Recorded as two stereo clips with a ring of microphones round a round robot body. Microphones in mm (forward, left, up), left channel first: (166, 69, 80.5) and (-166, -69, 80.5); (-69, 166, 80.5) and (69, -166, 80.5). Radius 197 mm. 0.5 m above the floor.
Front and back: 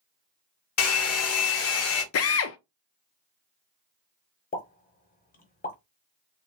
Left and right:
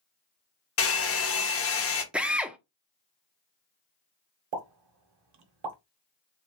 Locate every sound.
0.8 s a hair dryer: 65° left, 1.1 m
2.1 s a drill: 15° left, 0.5 m
4.5 s a pop: 45° right, 1.0 m